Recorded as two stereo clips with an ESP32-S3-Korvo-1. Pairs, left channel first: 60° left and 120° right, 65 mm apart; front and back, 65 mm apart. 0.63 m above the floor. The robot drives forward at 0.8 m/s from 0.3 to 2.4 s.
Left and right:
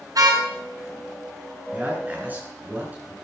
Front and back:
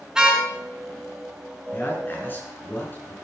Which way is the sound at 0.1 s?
100° right.